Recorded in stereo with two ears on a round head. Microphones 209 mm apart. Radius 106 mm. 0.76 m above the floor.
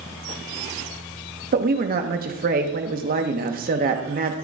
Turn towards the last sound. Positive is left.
turn(degrees=-40)  # may be behind; listen again after turning